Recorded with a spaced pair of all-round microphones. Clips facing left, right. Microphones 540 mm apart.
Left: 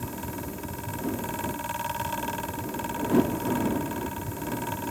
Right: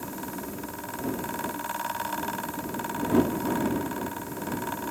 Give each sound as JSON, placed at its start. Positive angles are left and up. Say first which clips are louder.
{"t": 0.0, "sound": "a fan", "louder": "even", "side_deg": 55}